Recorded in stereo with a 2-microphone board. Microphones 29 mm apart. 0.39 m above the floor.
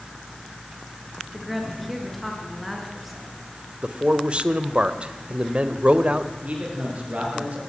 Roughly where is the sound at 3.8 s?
Right.